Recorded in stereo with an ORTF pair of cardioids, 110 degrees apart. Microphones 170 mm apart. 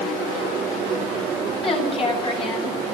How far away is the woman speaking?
About 9.5 m.